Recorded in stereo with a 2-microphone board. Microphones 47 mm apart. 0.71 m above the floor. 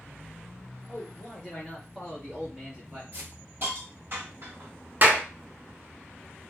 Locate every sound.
0.9 s a man speaking: 25° left (ahead or behind), 1.1 m; by 3.0 s 30° right (ahead or behind), 1.6 m
3.1 s a hiss: 50° right (ahead or behind), 1.4 m
5.0 s a clap: 40° right (ahead or behind), 0.5 m